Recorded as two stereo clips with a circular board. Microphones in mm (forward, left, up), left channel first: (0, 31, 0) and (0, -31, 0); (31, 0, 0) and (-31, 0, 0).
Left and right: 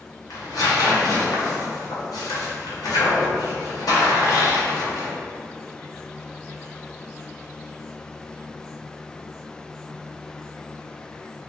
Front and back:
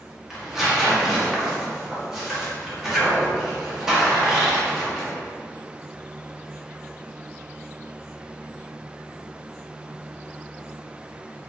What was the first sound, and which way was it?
Tearing paper, 95° left.